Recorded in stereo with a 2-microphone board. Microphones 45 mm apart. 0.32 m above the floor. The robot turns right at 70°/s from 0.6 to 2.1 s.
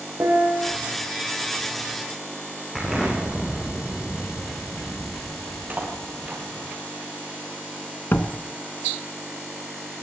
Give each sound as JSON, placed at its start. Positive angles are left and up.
{"t": 0.2, "sound": "a piano", "side_deg": -70, "distance_m": 6.5}
{"t": 2.8, "sound": "an explosion", "side_deg": 0, "distance_m": 5.5}
{"t": 5.7, "sound": "cutlery clinking", "side_deg": -30, "distance_m": 4.5}
{"t": 8.1, "sound": "a door slam", "side_deg": 50, "distance_m": 2.0}